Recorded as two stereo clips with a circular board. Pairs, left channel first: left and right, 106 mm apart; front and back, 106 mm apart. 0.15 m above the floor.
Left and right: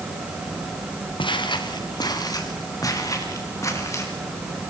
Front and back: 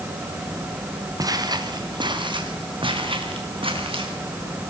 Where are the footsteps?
125° left, 2.5 m; by 4.1 s 150° left, 6.5 m.